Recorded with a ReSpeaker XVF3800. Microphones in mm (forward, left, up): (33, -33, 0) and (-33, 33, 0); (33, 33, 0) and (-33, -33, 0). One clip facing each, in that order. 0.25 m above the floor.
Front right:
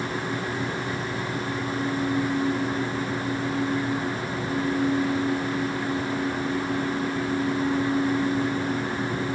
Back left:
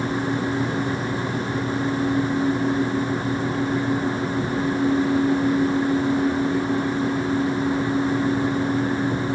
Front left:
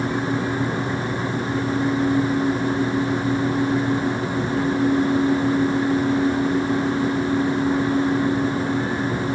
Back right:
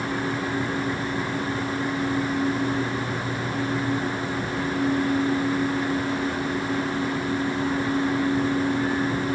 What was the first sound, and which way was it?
Only background noise.